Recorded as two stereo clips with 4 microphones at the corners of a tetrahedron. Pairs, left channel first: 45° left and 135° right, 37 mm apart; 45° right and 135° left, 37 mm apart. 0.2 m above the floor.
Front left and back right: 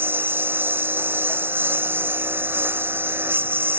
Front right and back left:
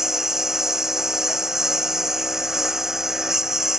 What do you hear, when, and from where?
0.0 s a lawn mower: 145° right